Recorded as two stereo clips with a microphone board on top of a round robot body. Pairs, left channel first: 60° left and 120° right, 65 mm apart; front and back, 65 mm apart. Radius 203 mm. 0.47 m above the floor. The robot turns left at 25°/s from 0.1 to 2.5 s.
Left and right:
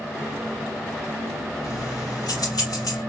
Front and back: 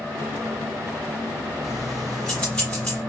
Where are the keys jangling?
95° left, 2.5 m; by 3.0 s 75° left, 2.5 m.